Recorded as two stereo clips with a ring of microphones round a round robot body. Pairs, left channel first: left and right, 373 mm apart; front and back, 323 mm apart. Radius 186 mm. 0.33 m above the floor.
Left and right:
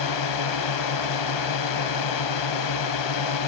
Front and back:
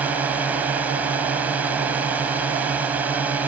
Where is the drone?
95° left.